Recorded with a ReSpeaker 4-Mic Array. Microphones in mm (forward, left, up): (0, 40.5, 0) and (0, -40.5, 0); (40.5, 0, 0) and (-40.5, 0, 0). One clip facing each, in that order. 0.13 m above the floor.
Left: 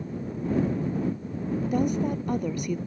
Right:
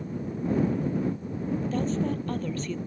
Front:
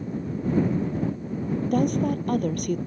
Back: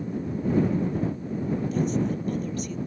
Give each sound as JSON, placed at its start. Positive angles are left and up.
{"t": 1.6, "sound": "a woman speaking", "azimuth_deg": 15}